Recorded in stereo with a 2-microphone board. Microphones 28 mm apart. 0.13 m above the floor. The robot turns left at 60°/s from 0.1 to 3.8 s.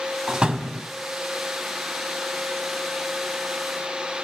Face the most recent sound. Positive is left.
turn(degrees=135)